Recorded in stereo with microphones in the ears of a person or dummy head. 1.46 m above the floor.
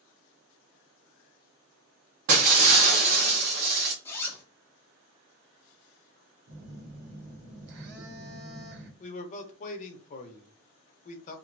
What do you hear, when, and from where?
2.3 s breaking glass: 45° right (ahead or behind), 0.9 m
4.0 s a zipper: 15° left (ahead or behind), 0.5 m
6.5 s a phone buzzing: 55° right (ahead or behind), 1.0 m
9.0 s a man speaking: 40° left (ahead or behind), 0.7 m